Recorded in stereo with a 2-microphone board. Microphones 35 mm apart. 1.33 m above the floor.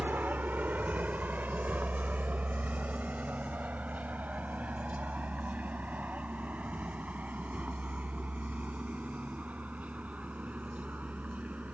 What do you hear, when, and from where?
0.0 s a vehicle: 60° right (ahead or behind); by 11.7 s 40° right (ahead or behind)